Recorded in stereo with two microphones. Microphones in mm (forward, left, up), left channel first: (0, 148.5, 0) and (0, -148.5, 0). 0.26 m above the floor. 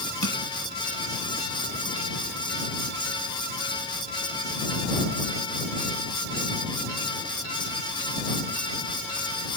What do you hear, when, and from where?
0.2 s crushing: 55° right (ahead or behind)